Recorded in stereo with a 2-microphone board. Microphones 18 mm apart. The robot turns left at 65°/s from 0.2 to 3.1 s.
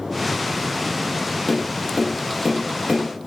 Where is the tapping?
20° left (ahead or behind), 1.2 m; by 3.3 s 40° right (ahead or behind), 1.2 m.